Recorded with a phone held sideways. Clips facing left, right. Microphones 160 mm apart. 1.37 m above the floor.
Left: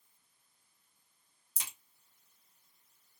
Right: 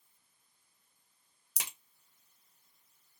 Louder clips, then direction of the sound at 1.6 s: Right 3 dB; 80° right.